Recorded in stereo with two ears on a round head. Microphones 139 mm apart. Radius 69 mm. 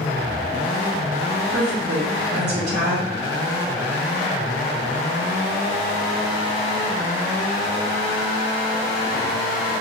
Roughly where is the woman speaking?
Right.